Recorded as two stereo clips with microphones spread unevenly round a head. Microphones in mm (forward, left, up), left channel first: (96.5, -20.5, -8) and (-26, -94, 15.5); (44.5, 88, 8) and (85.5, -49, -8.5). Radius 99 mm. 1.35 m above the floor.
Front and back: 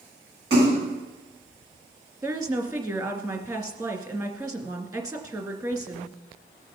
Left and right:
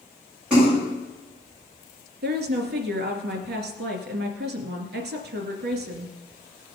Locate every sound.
0.5 s a splash: 160° right, 7.5 m
2.2 s a woman speaking: 80° right, 2.5 m